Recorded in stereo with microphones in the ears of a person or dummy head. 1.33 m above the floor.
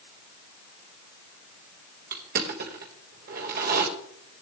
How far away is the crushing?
About 1.4 m.